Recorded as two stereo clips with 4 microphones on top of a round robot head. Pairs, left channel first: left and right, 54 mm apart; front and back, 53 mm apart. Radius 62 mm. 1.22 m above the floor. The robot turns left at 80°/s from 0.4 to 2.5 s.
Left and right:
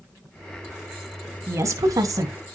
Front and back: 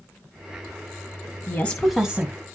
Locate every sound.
1.5 s a woman speaking: 50° right, 1.1 m; by 2.5 s 130° right, 1.1 m